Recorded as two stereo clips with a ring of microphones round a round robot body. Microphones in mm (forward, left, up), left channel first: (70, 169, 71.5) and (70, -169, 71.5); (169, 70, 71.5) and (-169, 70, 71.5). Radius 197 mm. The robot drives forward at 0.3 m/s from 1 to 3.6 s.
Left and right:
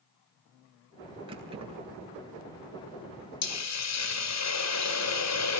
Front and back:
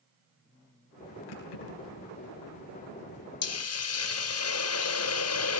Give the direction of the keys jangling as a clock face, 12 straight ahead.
12 o'clock.